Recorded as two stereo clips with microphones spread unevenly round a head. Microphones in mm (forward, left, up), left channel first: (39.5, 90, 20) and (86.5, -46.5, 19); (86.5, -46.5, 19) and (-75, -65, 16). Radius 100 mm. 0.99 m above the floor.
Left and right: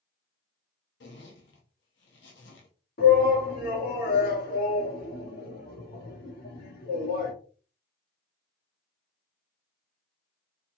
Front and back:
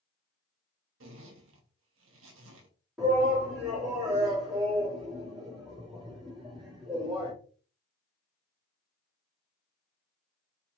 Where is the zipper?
150° left, 0.7 m.